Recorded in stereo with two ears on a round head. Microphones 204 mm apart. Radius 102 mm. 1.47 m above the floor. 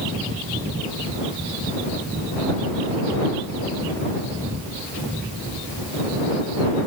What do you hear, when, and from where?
Only background noise.